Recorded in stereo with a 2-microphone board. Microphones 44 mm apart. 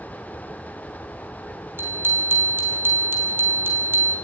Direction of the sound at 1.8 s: 55° right (ahead or behind).